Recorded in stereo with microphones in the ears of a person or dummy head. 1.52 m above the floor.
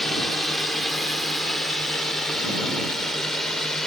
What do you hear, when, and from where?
0.0 s a drone: 5° left (ahead or behind); by 3.9 s 10° left (ahead or behind)